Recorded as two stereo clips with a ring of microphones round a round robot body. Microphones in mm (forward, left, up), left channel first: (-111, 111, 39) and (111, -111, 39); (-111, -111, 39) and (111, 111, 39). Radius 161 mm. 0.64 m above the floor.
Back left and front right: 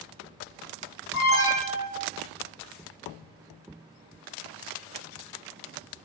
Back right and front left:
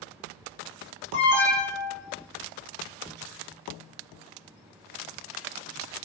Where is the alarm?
170° left, 5.5 m.